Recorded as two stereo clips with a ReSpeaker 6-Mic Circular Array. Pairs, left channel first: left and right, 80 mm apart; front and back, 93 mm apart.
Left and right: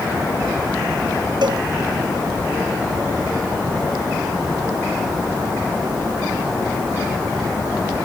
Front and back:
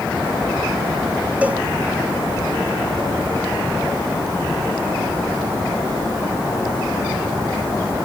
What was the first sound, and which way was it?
A cowbell, 105° right.